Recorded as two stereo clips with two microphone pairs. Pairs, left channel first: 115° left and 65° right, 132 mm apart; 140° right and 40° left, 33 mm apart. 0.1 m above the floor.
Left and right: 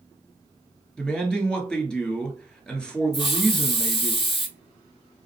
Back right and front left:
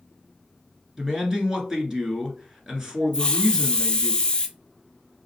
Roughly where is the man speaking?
Ahead left.